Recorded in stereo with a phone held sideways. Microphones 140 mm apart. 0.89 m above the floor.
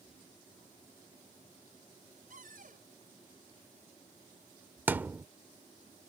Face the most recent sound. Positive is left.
turn(degrees=-15)  # may be behind; listen again after turning